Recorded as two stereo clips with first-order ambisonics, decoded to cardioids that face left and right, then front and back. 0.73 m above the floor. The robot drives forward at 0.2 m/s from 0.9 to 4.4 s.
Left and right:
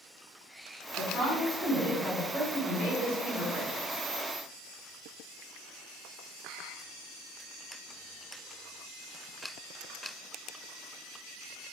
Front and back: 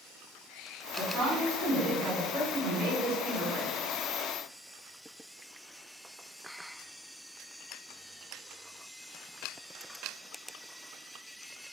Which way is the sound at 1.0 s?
120° left.